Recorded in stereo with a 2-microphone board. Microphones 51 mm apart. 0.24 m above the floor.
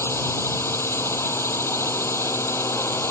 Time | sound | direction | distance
0.0 | a drone | 55° left (ahead or behind) | ?